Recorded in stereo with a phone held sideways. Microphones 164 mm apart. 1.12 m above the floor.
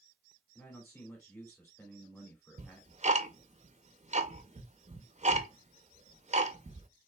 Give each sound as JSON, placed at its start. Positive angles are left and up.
{"t": 0.6, "sound": "a man speaking", "side_deg": 15, "distance_m": 2.0}
{"t": 2.6, "sound": "ticking", "side_deg": -45, "distance_m": 0.6}